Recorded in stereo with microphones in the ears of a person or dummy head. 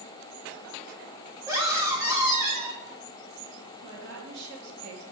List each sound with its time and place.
1.5 s a scream: 15° right (ahead or behind), 2.5 m
3.8 s a woman speaking: 70° right (ahead or behind), 2.5 m